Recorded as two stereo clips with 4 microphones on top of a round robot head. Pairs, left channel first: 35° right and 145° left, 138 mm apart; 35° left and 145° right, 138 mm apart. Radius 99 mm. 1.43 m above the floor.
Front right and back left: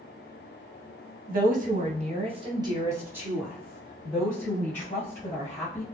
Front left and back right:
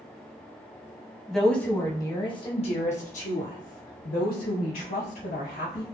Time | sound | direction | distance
1.3 | a woman speaking | 125° left | 1.3 m